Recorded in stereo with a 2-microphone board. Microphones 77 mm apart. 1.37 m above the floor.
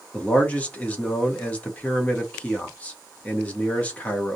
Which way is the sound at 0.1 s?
20° left (ahead or behind).